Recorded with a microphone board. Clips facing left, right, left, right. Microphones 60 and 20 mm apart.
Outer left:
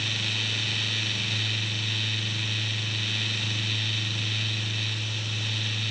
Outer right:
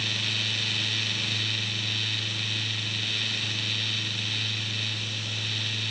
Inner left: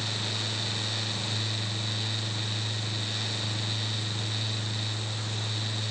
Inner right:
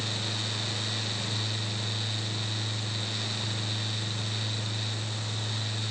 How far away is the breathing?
No breathing in this recording.